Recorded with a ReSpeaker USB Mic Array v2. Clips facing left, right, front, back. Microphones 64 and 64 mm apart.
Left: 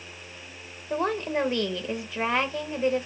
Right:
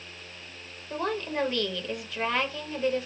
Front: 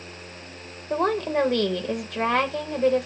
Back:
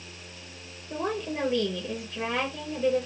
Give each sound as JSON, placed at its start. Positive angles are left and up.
{"t": 0.9, "sound": "a woman speaking", "azimuth_deg": 25, "distance_m": 0.7}